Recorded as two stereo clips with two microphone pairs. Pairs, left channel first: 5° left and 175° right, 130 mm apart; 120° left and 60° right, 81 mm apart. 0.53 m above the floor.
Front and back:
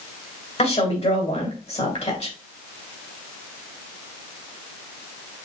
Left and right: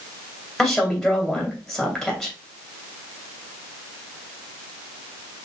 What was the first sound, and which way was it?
A woman speaking, 40° left.